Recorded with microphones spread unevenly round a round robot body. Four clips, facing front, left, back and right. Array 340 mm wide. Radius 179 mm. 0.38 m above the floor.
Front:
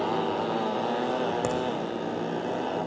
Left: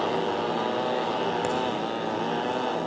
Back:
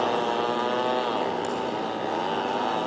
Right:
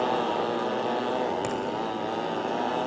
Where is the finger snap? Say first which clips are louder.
Left 3 dB, front 1 dB; 5° left, 1.9 m.